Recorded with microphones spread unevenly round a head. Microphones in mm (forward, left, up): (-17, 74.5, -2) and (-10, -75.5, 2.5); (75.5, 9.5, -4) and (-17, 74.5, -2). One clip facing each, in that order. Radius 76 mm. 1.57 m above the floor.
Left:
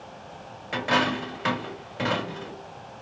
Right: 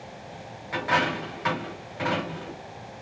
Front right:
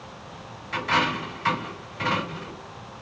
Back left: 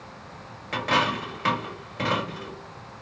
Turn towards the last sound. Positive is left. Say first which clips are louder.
# left 1 dB, even
turn(degrees=145)